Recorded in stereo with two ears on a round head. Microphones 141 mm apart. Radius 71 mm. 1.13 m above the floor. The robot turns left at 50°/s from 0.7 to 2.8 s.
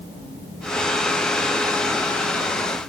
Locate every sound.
Only background noise.